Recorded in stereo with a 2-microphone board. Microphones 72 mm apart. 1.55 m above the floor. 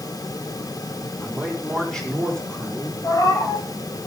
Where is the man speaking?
10° left (ahead or behind), 7 m.